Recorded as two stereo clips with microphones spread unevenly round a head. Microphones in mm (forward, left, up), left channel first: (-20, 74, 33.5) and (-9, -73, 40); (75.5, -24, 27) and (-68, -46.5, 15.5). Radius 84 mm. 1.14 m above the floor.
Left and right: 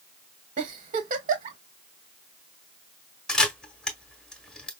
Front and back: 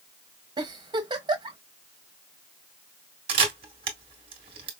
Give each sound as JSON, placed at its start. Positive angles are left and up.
{"t": 0.6, "sound": "a giggle", "azimuth_deg": -115, "distance_m": 1.2}
{"t": 3.3, "sound": "a camera shutter", "azimuth_deg": 180, "distance_m": 0.8}